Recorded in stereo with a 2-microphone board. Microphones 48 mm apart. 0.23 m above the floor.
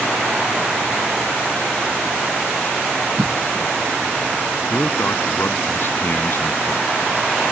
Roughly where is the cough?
Right.